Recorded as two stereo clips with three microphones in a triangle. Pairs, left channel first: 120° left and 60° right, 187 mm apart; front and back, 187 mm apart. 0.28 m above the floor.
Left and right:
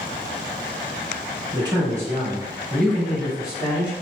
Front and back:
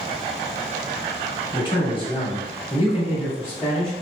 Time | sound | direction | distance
1.5 | a man speaking | 30° right | 1.1 m